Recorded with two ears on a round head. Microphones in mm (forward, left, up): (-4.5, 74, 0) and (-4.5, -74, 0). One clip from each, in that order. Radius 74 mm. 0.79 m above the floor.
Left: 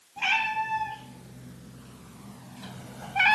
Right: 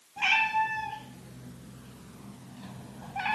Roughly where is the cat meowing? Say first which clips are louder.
Right 1 dB; centre.